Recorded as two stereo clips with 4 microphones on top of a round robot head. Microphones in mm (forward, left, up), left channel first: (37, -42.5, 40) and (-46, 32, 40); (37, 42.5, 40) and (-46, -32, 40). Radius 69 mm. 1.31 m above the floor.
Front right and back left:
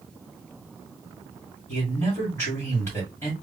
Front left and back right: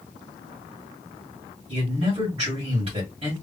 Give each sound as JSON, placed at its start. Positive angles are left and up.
{"t": 1.7, "sound": "a man speaking", "azimuth_deg": -110, "distance_m": 2.0}